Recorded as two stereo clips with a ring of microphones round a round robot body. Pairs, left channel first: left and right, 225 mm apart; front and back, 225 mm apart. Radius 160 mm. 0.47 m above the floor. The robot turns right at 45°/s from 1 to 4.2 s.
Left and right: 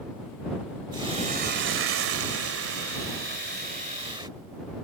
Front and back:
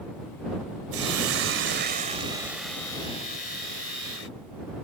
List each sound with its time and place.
0.9 s a hiss: 165° right; by 4.3 s 20° right